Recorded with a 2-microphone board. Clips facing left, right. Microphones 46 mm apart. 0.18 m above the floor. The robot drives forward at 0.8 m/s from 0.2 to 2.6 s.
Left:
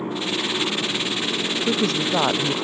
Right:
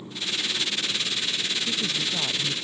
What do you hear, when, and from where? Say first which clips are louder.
0.0 s a motorcycle: left 6 dB; 65° left (ahead or behind); by 2.6 s 85° left
1.6 s a woman speaking: left 7 dB; 70° left (ahead or behind); by 2.5 s 65° left (ahead or behind)